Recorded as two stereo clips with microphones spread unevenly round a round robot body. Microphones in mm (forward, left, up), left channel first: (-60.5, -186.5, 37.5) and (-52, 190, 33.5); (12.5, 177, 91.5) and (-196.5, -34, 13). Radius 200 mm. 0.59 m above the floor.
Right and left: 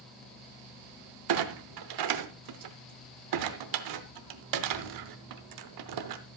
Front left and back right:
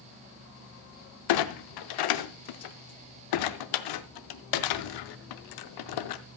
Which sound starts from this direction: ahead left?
A clunk, at 1.3 s.